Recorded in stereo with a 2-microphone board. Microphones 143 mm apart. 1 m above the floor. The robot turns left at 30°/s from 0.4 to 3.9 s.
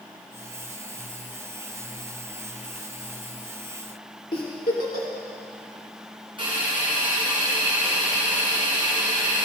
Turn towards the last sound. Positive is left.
turn(degrees=-35)  # may be behind; listen again after turning